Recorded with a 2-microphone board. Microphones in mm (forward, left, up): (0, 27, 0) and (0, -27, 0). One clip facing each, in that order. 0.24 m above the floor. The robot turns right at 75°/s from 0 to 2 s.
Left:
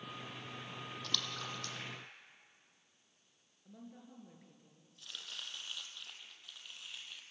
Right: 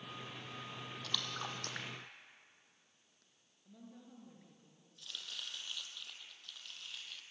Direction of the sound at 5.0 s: 15° left (ahead or behind).